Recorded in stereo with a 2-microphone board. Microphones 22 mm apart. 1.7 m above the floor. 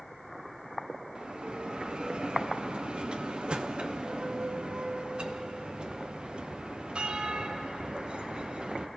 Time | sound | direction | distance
1.1 | a bell | 50° right (ahead or behind) | 0.9 m